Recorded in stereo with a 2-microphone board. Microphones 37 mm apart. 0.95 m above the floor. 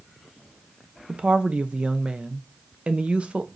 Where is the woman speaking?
35° right (ahead or behind), 0.6 m.